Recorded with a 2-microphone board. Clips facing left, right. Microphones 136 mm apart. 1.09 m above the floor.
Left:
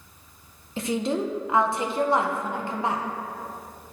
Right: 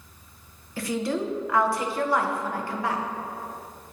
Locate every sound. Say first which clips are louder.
0.8 s a woman speaking: left 1 dB; 20° left (ahead or behind), 0.6 m